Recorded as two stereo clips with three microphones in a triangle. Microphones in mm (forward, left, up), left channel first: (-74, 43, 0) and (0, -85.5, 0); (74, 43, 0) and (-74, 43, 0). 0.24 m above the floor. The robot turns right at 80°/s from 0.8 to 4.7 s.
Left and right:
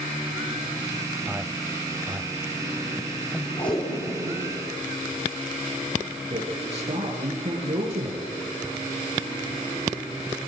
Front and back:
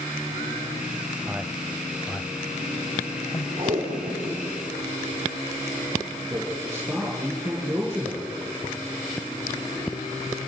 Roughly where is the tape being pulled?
Behind.